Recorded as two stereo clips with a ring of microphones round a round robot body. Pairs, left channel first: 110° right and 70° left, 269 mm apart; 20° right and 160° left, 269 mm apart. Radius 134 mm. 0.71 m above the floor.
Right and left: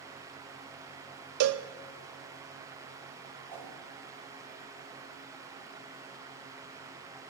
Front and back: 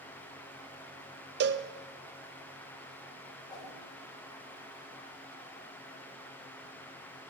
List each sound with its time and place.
1.4 s a cowbell: 105° left, 0.7 m
3.5 s a whoosh: 55° left, 4 m